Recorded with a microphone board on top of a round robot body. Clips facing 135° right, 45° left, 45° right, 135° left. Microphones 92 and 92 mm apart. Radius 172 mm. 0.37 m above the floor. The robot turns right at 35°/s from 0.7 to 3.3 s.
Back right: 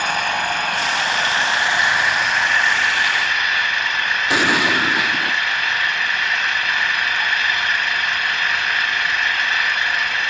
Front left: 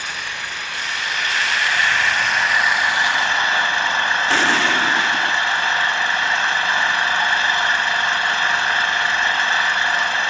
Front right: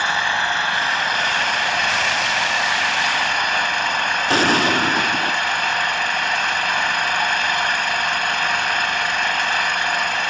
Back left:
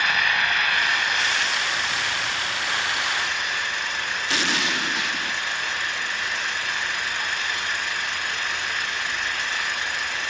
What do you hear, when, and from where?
0.0 s an engine running: 105° right; by 10.3 s 15° right
4.3 s an explosion: 65° right